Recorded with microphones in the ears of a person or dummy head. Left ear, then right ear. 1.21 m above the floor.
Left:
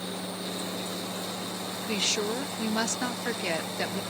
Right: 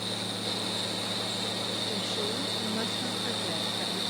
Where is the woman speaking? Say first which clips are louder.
Left 3 dB; 45° left (ahead or behind).